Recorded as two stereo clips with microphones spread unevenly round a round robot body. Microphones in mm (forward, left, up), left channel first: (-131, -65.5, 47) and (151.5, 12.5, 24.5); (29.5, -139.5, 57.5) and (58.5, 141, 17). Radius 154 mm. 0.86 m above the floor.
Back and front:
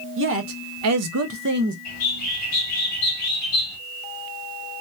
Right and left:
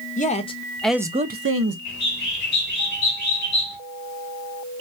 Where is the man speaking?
30° right, 0.9 m; by 1.8 s 75° left, 0.6 m.